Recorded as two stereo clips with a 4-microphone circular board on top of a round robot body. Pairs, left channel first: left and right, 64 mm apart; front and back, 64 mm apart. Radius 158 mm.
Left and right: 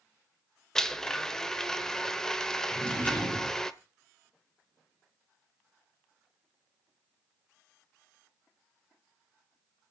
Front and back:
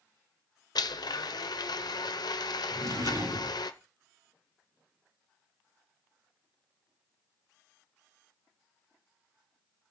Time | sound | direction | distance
0.8 | a blender | 5° left | 1.1 m
2.7 | a drawer | 150° left | 5 m